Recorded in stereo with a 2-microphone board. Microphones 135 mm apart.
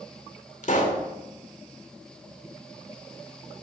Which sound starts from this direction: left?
A pop, at 0.6 s.